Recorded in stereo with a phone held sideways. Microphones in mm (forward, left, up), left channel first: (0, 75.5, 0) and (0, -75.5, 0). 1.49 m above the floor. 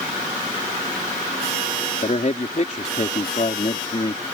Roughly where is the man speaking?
Left.